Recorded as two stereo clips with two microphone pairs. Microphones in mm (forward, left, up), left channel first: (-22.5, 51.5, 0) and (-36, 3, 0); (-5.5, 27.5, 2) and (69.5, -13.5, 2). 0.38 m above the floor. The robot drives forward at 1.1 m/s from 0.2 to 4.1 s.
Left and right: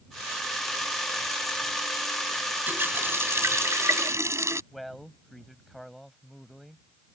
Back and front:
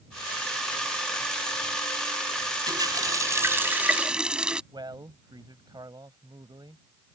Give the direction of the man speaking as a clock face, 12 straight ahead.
12 o'clock.